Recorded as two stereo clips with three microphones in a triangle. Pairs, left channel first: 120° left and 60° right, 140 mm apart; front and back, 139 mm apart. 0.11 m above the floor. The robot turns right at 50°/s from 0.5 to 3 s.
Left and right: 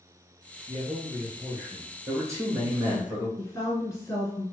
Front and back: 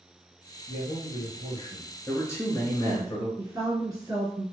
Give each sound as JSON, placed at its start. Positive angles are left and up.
{"t": 0.7, "sound": "a man speaking", "azimuth_deg": -25, "distance_m": 1.9}
{"t": 2.1, "sound": "a man speaking", "azimuth_deg": -45, "distance_m": 1.1}
{"t": 3.4, "sound": "a woman speaking", "azimuth_deg": 155, "distance_m": 1.3}